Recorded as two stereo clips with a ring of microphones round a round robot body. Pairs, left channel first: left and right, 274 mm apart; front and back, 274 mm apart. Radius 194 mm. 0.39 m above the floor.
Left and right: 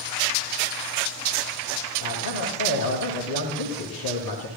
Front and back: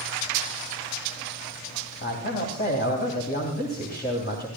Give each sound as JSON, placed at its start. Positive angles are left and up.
{"t": 2.0, "sound": "a man speaking", "azimuth_deg": 50, "distance_m": 3.0}